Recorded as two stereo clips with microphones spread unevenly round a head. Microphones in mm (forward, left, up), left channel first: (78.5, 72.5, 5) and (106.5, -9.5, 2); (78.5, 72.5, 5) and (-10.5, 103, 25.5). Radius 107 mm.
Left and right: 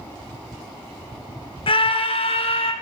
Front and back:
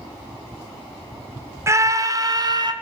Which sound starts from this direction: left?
A scream, at 1.7 s.